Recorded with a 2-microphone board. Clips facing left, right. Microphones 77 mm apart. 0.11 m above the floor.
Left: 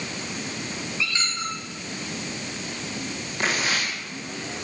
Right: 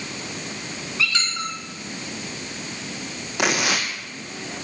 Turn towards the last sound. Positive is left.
turn(degrees=-75)  # may be behind; listen again after turning